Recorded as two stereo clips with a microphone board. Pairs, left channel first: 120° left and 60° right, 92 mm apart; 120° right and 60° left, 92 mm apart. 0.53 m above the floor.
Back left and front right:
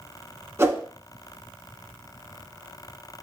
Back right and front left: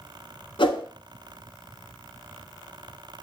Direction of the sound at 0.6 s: 115° right.